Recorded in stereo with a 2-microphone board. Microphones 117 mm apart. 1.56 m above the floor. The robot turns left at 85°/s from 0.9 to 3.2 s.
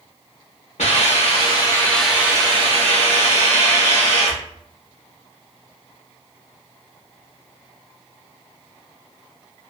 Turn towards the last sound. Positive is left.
turn(degrees=-100)